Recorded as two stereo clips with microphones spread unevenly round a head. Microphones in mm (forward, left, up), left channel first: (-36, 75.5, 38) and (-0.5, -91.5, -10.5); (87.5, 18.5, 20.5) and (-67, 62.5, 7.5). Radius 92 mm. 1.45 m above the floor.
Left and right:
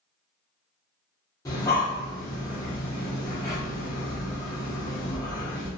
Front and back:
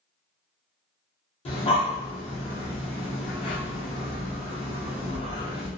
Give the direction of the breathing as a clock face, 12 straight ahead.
11 o'clock.